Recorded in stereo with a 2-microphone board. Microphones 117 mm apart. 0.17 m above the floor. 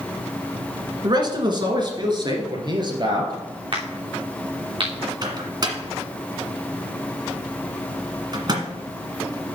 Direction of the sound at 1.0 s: 40° right (ahead or behind).